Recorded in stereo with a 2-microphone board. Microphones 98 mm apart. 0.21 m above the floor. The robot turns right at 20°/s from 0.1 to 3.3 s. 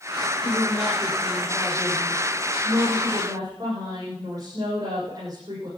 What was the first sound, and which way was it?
A woman speaking, 175° left.